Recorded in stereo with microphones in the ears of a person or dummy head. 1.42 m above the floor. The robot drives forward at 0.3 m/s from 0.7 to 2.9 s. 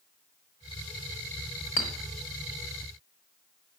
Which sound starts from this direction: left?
A clink, at 1.8 s.